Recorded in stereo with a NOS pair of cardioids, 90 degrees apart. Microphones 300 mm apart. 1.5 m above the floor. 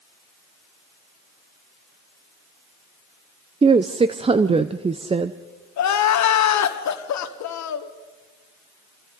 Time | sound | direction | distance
3.6 | a woman speaking | 20° right | 0.7 m
5.8 | crying | 65° left | 1.6 m